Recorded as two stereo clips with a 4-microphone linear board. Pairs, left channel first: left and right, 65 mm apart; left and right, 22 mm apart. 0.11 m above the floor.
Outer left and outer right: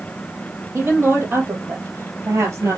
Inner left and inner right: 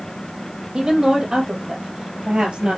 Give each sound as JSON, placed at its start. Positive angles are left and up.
{"t": 0.7, "sound": "a woman speaking", "side_deg": -35, "distance_m": 3.5}